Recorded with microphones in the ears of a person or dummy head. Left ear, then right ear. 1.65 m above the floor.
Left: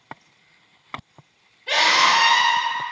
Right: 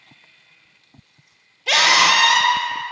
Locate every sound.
1.7 s a scream: 80° right, 0.6 m